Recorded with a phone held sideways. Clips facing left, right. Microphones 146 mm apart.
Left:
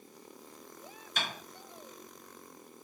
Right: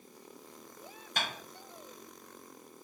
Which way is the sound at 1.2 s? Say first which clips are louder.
Right 1 dB; 65° right (ahead or behind).